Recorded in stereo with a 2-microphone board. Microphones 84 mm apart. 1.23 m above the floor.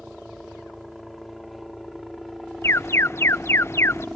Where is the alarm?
30° left (ahead or behind).